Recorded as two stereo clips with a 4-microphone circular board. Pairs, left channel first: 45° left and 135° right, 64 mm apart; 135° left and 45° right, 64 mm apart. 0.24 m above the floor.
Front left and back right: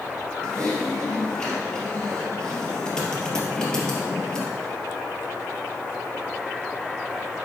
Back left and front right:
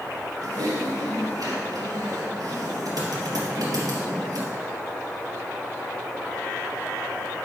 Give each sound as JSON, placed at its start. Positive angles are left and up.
{"t": 0.4, "sound": "typing on a keyboard", "azimuth_deg": -35, "distance_m": 3.0}